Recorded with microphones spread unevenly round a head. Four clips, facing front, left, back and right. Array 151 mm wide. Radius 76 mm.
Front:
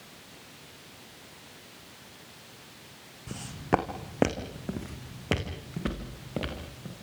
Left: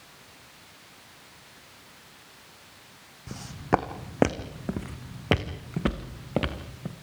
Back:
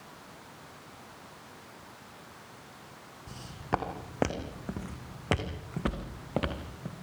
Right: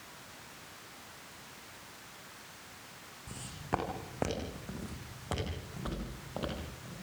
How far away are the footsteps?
About 3.5 m.